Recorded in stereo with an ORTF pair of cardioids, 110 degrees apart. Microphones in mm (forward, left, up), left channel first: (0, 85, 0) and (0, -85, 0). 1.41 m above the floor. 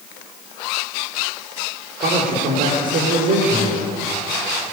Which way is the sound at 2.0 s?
55° right.